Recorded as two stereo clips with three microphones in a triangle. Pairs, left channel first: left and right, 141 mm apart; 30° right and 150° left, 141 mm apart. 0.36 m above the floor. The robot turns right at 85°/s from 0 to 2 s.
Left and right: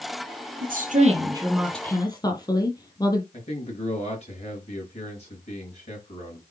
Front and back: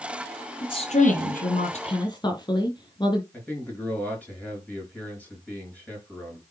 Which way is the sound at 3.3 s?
50° left.